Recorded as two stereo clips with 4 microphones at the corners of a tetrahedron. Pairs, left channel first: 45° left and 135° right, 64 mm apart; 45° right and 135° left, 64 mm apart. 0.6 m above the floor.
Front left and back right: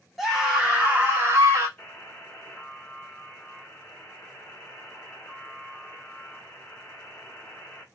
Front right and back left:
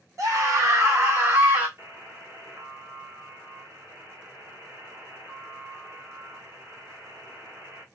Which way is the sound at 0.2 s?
140° left.